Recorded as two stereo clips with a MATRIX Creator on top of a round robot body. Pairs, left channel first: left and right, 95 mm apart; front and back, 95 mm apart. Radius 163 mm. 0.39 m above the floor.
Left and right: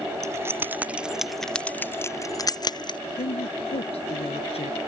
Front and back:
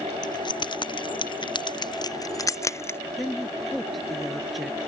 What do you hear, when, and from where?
0.2 s keys jangling: 35° right; by 3.0 s 60° left
3.2 s a woman speaking: 90° left